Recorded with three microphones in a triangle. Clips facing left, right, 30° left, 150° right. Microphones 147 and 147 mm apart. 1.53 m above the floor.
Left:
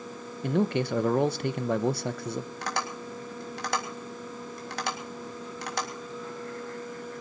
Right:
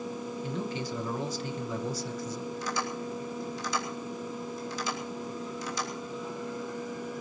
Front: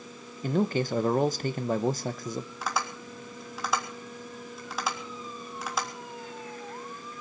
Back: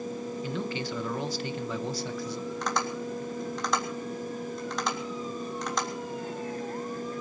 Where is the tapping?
115° left, 3.5 m.